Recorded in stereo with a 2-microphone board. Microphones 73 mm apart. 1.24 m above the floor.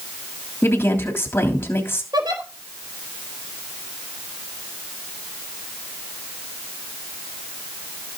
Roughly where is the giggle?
Right.